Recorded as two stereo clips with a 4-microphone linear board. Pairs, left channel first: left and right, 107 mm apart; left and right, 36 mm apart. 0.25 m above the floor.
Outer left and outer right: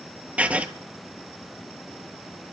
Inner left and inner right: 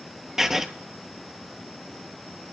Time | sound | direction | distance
0.4 | writing | 10° right (ahead or behind) | 0.9 m